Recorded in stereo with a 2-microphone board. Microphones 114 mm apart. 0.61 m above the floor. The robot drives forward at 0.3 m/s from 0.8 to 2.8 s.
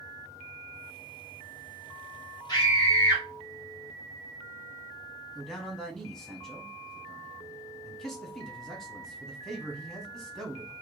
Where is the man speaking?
5° left (ahead or behind), 0.9 m.